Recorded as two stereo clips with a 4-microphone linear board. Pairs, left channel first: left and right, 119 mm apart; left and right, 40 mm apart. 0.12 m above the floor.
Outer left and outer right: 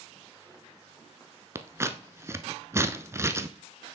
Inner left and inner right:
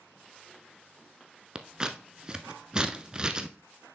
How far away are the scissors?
About 0.6 m.